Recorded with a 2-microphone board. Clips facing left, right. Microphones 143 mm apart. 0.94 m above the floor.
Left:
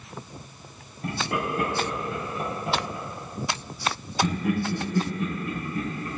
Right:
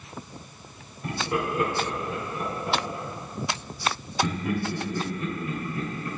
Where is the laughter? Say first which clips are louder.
Right 1 dB; 70° left (ahead or behind), 4.5 m; by 6.1 s 65° left (ahead or behind), 7 m.